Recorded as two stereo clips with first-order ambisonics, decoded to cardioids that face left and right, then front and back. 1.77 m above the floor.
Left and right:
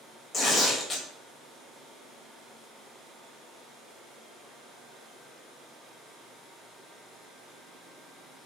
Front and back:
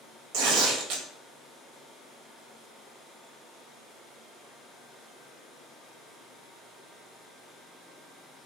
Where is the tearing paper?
165° left, 0.7 m.